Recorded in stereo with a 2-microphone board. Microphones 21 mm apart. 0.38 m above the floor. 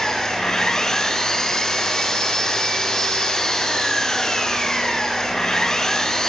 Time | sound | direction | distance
0.0 | an engine running | 25° left (ahead or behind) | 4 m